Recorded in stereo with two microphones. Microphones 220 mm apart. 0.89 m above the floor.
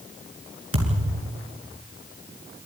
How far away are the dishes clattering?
I don't hear dishes clattering.